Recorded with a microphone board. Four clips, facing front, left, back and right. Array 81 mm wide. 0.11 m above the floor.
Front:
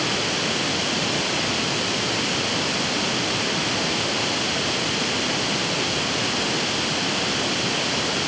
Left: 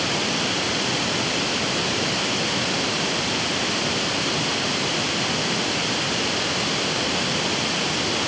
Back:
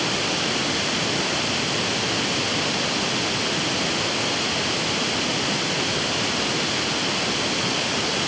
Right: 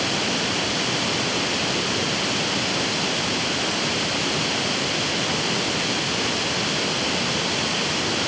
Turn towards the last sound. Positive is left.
No sound to turn to.